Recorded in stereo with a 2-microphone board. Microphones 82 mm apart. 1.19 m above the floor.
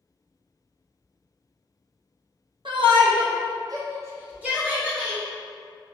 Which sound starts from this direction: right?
A shout, at 2.6 s.